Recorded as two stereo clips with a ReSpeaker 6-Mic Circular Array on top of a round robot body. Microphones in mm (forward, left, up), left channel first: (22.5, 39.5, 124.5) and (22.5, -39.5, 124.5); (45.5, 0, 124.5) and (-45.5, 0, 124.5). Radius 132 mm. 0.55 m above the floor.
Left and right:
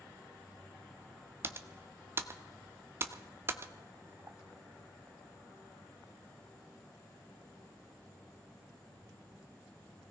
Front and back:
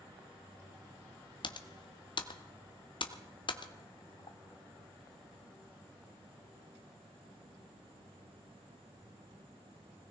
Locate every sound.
1.4 s typing on a keyboard: 30° right, 0.8 m